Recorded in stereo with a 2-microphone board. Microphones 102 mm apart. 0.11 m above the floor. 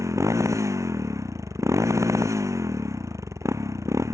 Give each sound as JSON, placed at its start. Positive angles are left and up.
{"t": 0.0, "sound": "a motorcycle", "side_deg": -30}